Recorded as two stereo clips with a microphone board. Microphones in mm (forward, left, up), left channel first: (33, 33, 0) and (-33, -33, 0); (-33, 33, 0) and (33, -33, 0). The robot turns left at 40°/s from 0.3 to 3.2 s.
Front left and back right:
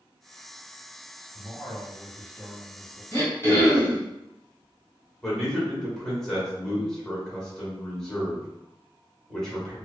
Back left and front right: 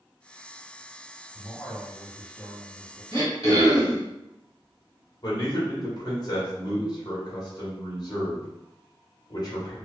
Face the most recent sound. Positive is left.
turn(degrees=130)